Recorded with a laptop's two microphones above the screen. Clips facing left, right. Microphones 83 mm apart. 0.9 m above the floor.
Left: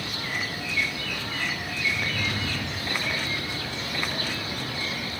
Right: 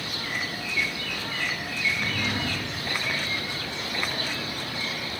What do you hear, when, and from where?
1.8 s a drawer: 60° right (ahead or behind), 3.5 m